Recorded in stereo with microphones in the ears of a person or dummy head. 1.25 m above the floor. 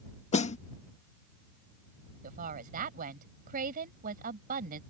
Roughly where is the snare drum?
Left.